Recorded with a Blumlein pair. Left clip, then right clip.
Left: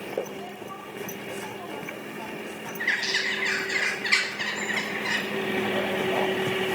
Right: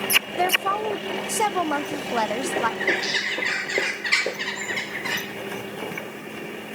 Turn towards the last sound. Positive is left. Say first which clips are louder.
# right 2 dB
turn(degrees=0)